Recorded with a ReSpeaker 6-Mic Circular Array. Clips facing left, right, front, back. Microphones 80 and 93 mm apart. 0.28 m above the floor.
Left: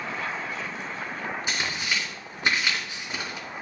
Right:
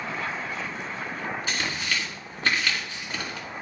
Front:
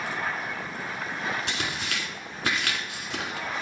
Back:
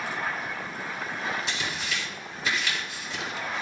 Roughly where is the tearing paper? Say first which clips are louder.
Left 1 dB, front 1 dB; ahead.